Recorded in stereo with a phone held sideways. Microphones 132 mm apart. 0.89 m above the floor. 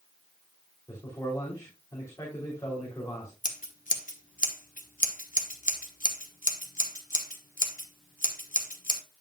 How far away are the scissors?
About 1.3 m.